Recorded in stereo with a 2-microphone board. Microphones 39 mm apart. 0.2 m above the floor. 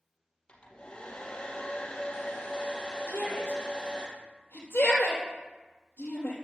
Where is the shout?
65° left (ahead or behind), 4 m.